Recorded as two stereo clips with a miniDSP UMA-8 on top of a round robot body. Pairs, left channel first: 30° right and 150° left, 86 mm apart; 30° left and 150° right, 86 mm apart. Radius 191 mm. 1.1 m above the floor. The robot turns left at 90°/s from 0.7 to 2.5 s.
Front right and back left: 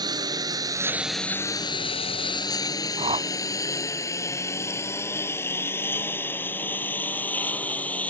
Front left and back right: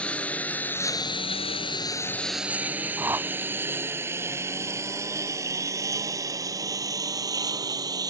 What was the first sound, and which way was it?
A lawn mower, 110° left.